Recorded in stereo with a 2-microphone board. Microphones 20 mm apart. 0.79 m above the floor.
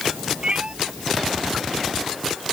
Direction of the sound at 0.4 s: 55° right (ahead or behind).